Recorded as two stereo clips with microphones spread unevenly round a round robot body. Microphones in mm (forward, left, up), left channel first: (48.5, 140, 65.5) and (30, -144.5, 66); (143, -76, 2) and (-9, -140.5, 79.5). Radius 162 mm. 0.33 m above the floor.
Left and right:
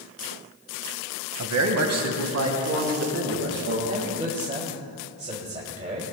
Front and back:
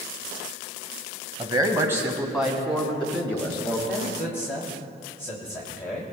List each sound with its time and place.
1.4 s a man speaking: 85° right, 1.8 m; by 3.8 s 50° right, 4 m
3.9 s a man speaking: 35° right, 2.5 m